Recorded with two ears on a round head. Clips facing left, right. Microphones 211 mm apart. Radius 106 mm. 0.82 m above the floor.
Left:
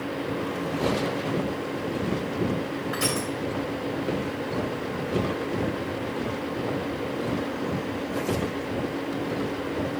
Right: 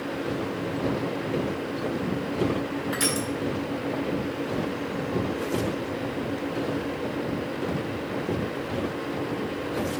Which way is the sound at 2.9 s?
75° right (ahead or behind).